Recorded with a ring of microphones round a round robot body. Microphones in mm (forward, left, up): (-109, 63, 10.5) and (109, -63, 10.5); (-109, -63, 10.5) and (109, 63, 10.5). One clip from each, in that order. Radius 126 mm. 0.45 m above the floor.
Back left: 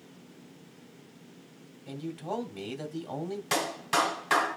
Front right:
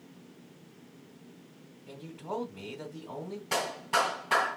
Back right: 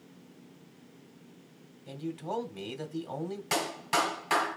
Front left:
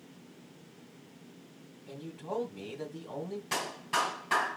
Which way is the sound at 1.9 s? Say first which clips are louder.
Back left 3 dB, back right 3 dB; 170° left.